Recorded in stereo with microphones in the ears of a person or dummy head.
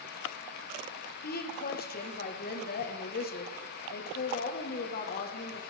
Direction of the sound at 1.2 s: 45° left (ahead or behind).